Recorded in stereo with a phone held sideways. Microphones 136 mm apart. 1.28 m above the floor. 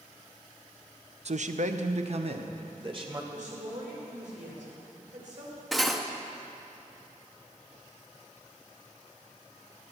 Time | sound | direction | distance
1.2 | a man speaking | 55° right (ahead or behind) | 0.7 m
3.3 | a woman speaking | 65° right (ahead or behind) | 4.5 m
5.7 | cutlery clinking | centre (ahead or behind) | 0.9 m